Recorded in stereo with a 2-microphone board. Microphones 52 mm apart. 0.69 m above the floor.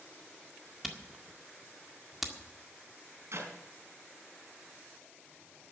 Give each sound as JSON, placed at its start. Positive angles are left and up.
{"t": 0.8, "sound": "a camera shutter", "side_deg": -5, "distance_m": 1.8}
{"t": 3.3, "sound": "a clap", "side_deg": -60, "distance_m": 4.0}